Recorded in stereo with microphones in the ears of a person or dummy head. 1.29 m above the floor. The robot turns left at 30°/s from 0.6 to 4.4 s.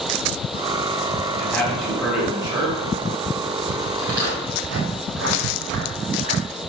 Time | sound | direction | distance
1.4 | a man speaking | 10° left | 6 m
4.0 | footsteps | 75° right (ahead or behind) | 7 m